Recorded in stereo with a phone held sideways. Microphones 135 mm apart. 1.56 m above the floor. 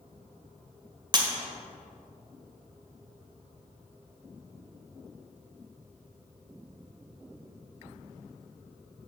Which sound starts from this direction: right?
Breaking glass, at 1.1 s.